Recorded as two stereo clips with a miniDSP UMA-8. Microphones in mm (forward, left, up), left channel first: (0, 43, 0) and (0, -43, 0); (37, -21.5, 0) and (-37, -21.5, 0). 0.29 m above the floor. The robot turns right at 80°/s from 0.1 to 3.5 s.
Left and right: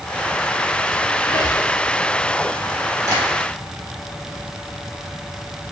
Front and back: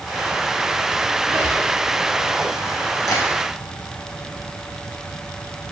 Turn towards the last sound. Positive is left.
turn(degrees=-5)